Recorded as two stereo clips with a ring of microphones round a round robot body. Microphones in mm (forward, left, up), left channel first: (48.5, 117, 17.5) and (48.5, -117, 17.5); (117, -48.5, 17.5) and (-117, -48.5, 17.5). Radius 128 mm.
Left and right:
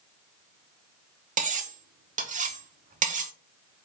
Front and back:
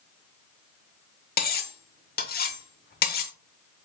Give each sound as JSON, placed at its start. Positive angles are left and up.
{"t": 1.4, "sound": "cutlery clinking", "azimuth_deg": -40, "distance_m": 0.9}